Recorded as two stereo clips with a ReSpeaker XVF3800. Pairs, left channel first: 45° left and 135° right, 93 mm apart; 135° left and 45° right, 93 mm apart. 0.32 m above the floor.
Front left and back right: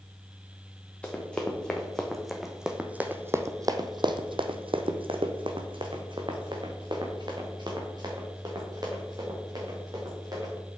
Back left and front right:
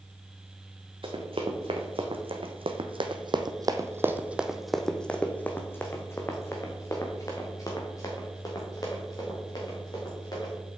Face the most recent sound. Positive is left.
turn(degrees=180)